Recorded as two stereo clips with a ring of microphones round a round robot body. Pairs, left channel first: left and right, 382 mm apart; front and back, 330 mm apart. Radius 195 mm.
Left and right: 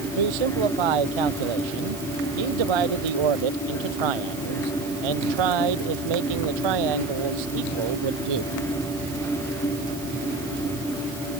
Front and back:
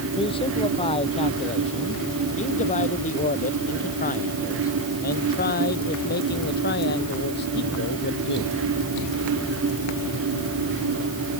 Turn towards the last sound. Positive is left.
turn(degrees=-65)